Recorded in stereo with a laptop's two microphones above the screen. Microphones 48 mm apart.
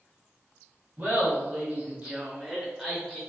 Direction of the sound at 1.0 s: 35° right (ahead or behind).